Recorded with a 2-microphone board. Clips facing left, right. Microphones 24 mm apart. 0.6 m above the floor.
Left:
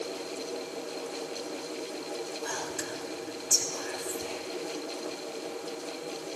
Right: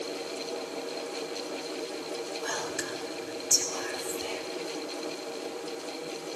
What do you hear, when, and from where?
2.4 s whispering: 40° right (ahead or behind), 2.5 m